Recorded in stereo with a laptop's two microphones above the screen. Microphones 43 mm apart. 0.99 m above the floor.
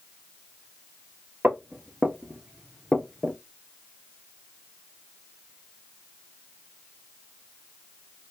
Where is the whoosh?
No whoosh in this recording.